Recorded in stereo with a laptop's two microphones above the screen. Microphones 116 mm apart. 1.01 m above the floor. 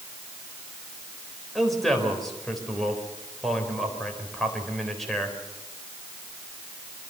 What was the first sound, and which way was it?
A man speaking, centre (ahead or behind).